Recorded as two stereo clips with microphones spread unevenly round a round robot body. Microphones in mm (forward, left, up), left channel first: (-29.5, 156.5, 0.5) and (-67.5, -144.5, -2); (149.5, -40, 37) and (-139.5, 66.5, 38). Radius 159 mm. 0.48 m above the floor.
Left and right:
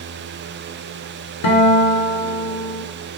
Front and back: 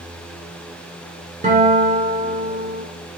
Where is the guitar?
90° left, 1.0 m.